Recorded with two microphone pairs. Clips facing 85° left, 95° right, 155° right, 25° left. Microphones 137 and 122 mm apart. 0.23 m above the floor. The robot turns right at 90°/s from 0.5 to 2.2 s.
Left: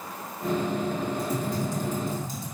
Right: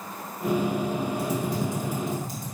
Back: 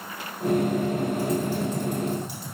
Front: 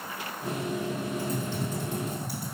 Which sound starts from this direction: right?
Typing on a keyboard, at 1.2 s.